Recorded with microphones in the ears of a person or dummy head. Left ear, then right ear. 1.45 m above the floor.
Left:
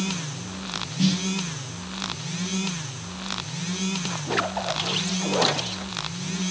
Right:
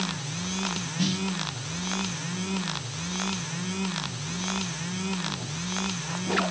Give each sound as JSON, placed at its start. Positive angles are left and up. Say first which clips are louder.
{"t": 1.0, "sound": "a snare drum", "louder": "left 4 dB", "side_deg": -15, "distance_m": 0.9}